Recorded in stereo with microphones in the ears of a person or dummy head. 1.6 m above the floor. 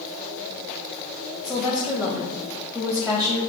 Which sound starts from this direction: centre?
A woman speaking, at 1.4 s.